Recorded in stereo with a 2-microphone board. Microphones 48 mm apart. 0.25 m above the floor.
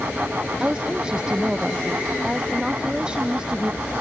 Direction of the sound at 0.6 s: 15° right (ahead or behind).